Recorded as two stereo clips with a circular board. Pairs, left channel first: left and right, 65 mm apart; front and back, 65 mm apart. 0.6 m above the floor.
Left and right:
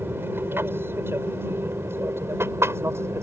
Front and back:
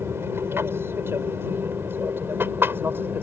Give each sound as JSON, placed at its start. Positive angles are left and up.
{"t": 0.0, "sound": "an aircraft", "azimuth_deg": -140}